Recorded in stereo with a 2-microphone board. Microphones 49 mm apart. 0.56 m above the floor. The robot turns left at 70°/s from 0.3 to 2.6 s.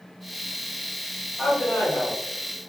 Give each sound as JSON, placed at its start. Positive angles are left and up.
{"t": 1.4, "sound": "a man speaking", "azimuth_deg": 155, "distance_m": 1.4}